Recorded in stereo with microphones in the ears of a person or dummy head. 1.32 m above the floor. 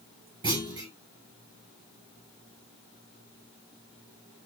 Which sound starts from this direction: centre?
A clunk, at 0.4 s.